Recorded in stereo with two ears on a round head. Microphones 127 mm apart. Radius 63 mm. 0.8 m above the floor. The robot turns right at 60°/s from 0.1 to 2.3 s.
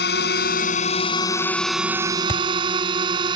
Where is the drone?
80° left; by 3.4 s 35° right (ahead or behind).